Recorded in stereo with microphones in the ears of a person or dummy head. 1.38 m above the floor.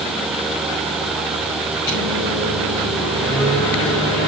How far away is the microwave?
About 6.5 m.